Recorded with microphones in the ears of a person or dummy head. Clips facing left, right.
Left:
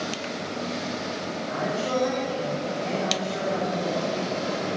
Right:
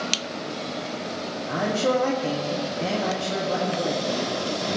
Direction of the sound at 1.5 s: 65° right (ahead or behind).